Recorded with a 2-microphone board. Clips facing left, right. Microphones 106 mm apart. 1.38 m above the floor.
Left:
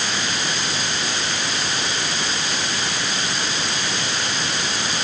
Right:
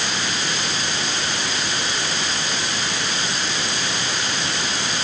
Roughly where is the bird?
I don't hear a bird.